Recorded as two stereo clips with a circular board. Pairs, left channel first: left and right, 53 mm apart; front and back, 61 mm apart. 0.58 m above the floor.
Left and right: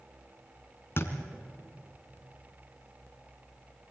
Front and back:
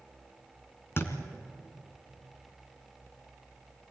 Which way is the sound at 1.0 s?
50° left.